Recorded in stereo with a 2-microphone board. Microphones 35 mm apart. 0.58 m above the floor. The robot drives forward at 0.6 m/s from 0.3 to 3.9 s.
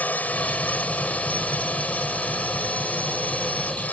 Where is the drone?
60° left (ahead or behind).